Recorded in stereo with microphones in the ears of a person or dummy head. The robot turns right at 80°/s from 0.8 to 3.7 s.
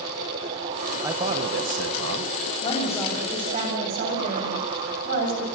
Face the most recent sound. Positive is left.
turn(degrees=-130)